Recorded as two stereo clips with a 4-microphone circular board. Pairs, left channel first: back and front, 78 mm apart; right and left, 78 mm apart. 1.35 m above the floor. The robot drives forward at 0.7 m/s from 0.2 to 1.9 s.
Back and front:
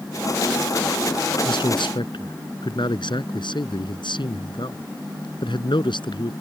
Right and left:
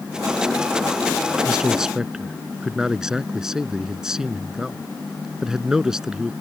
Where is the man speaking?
170° left; by 6.3 s 175° left.